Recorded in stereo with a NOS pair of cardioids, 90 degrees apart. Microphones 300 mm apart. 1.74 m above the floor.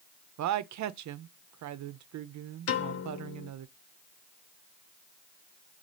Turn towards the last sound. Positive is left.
turn(degrees=55)